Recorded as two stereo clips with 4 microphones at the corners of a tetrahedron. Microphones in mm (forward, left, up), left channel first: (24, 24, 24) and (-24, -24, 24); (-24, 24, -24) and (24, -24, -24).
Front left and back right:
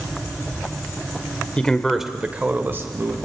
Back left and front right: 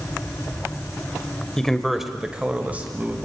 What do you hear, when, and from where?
1.6 s a man speaking: 70° left, 1.5 m; by 3.1 s 100° right, 2 m